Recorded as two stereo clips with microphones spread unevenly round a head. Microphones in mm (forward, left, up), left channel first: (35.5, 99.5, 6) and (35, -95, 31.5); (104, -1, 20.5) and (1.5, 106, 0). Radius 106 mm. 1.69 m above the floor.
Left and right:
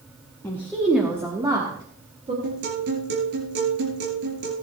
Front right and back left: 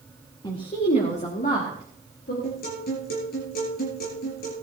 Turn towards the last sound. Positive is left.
turn(degrees=-70)